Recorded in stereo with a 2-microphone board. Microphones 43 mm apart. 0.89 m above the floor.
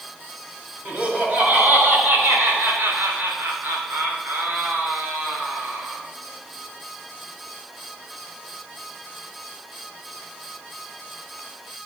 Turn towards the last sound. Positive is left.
turn(degrees=-50)  # may be behind; listen again after turning